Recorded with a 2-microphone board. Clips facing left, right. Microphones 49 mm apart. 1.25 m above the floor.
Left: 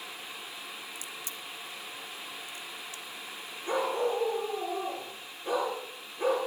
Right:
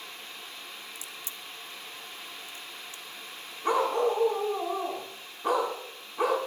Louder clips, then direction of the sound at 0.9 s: Left 1 dB; 25° right (ahead or behind).